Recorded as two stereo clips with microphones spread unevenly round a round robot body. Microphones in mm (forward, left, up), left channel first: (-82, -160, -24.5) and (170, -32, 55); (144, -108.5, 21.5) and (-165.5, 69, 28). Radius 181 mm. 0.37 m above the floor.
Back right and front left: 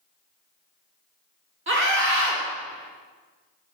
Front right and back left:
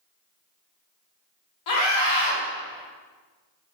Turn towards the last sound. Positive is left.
turn(degrees=-25)